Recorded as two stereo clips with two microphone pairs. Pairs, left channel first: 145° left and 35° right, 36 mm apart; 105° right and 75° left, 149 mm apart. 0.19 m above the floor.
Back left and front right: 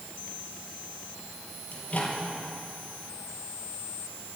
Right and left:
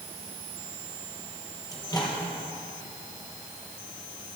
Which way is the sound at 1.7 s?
165° right.